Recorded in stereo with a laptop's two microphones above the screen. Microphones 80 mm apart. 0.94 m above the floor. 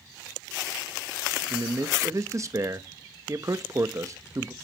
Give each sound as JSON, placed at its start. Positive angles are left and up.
{"t": 1.5, "sound": "a man speaking", "side_deg": -40, "distance_m": 0.9}